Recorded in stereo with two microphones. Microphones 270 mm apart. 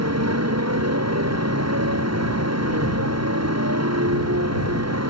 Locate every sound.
0.0 s a motorcycle: 75° right (ahead or behind)